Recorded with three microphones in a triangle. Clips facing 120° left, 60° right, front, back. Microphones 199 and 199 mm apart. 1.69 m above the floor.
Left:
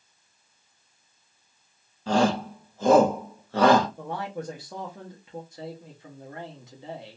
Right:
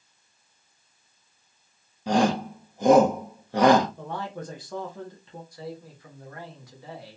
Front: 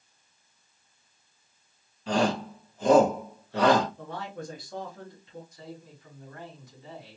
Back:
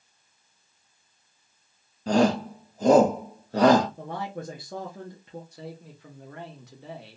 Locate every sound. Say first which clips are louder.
2.1 s a shout: even, back 5 dB; 135° right, 0.7 m
4.0 s a man speaking: left 1 dB, back 3 dB; 160° right, 0.9 m
5.5 s a man speaking: right 1 dB, back 3 dB; 175° right, 1.2 m